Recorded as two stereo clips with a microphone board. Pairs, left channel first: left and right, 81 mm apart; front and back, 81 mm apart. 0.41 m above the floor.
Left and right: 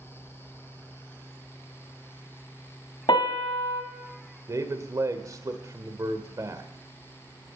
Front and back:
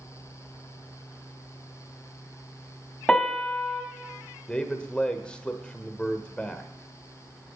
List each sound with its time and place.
3.1 s a piano: 80° left, 1.4 m
4.5 s a man speaking: 70° right, 1.2 m